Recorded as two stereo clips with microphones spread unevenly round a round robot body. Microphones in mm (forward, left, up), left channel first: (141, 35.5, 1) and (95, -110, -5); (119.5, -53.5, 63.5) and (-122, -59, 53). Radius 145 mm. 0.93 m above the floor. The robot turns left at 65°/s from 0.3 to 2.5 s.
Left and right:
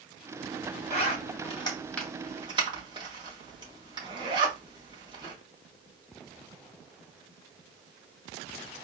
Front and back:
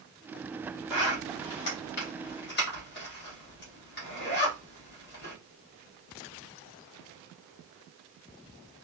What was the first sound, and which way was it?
A zipper, 60° left.